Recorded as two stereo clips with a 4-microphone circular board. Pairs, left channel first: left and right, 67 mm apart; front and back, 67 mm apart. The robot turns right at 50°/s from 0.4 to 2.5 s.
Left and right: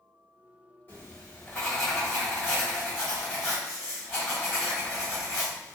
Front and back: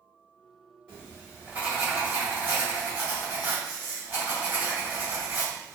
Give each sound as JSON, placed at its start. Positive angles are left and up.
{"t": 0.9, "sound": "writing", "azimuth_deg": 125, "distance_m": 1.6}